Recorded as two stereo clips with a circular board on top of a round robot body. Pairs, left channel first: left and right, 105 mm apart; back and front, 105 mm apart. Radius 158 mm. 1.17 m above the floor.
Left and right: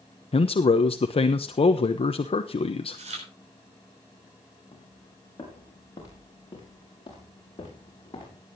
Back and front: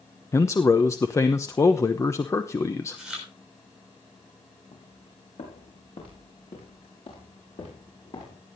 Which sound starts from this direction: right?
Chewing, at 2.9 s.